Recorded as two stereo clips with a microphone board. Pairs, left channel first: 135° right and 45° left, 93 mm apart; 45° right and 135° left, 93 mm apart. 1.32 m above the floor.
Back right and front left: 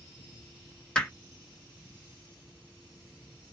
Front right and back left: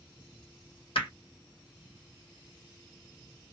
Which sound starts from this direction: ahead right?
Hammering, at 0.9 s.